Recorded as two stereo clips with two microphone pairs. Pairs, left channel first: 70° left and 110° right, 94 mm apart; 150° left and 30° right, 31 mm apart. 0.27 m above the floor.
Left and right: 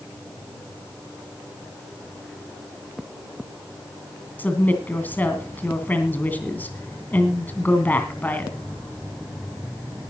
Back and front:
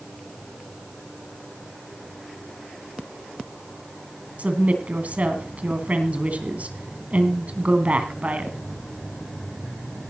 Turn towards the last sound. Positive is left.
turn(degrees=0)